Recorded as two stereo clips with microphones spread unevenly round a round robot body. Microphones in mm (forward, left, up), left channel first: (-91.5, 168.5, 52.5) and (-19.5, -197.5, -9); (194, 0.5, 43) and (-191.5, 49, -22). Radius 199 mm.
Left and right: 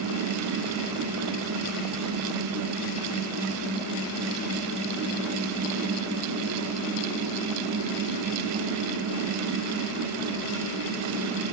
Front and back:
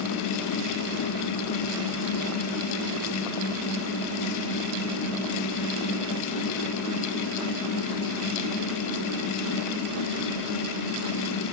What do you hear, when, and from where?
Only background noise.